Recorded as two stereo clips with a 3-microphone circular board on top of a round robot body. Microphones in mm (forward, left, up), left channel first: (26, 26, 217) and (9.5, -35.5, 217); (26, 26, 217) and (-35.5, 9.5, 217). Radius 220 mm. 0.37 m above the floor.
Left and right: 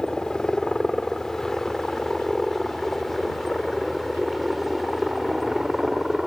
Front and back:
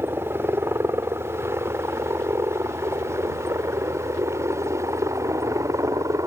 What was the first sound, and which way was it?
A helicopter, 150° left.